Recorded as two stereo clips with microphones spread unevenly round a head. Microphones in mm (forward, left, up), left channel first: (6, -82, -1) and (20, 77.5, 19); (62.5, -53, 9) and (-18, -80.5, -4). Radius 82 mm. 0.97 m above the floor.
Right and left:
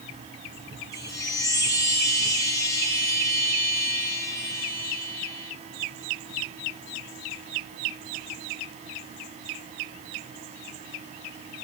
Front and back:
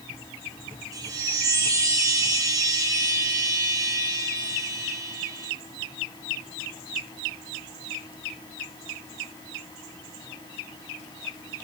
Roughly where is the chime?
Behind right.